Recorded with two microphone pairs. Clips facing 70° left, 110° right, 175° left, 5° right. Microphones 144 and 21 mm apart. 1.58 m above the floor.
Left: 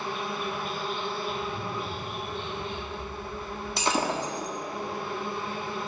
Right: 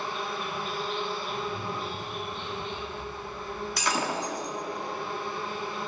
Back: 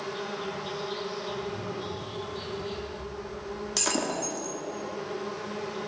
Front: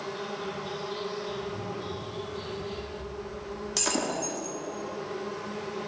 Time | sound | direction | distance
0.0 | an insect | 110° left | 3.5 m
1.3 | a zipper | 150° left | 2 m
3.8 | breaking glass | 90° left | 1.1 m